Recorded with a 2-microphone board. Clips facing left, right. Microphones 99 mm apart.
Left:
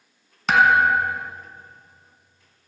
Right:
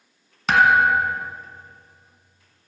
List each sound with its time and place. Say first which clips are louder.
0.5 s a thud: even; centre (ahead or behind), 1.2 m